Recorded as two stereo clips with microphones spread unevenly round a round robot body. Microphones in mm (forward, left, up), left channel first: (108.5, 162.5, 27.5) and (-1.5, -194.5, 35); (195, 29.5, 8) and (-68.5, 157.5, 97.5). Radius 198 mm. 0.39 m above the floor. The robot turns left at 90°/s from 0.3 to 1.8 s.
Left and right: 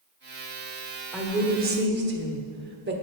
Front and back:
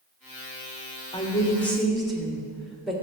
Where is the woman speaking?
20° right, 1.3 m; by 2.9 s 80° right, 1.3 m.